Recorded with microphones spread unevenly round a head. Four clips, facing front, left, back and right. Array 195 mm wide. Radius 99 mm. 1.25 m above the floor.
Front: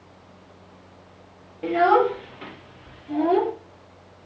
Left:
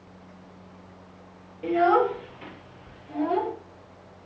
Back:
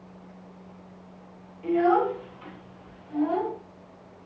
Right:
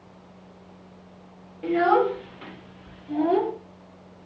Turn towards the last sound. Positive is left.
turn(degrees=-25)